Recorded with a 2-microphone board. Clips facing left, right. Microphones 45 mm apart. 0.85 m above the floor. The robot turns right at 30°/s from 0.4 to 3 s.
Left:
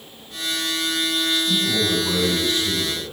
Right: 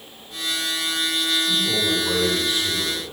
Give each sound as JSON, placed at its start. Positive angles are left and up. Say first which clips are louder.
{"t": 1.4, "sound": "a man speaking", "louder": "left 1 dB", "azimuth_deg": 155, "distance_m": 8.0}